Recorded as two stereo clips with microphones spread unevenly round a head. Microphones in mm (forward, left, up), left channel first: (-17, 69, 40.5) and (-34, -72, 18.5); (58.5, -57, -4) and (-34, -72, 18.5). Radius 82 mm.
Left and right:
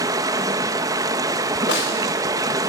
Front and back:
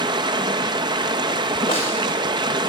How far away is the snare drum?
About 4 m.